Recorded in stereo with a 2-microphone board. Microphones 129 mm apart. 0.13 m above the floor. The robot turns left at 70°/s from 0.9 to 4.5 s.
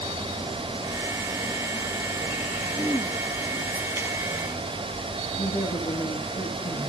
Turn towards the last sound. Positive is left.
turn(degrees=70)  # may be behind; listen again after turning